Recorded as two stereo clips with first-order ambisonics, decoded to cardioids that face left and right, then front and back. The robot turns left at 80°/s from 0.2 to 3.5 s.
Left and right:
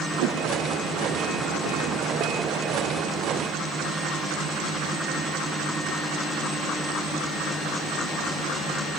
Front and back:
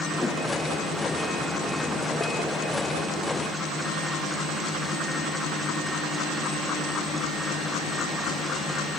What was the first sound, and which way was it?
A whoosh, 80° right.